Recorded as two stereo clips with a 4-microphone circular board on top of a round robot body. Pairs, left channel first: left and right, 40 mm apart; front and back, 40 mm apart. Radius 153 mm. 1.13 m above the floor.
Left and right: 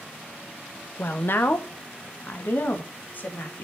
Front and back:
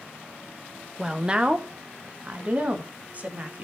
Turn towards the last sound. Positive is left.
turn(degrees=130)